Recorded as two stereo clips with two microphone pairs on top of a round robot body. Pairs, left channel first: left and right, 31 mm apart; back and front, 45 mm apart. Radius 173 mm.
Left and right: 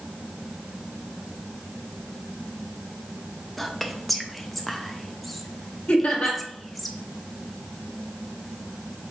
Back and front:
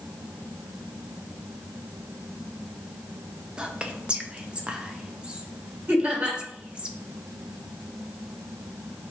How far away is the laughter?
About 1.5 m.